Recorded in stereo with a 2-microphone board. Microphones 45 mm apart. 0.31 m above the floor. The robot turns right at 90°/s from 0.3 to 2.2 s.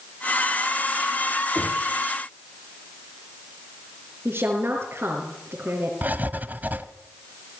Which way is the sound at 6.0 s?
45° right (ahead or behind).